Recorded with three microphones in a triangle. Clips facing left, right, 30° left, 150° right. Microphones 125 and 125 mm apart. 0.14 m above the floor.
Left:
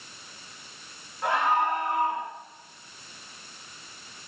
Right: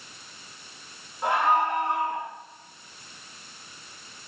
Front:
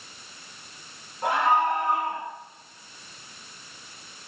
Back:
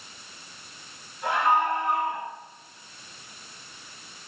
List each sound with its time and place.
1.2 s a scream: 15° right, 10 m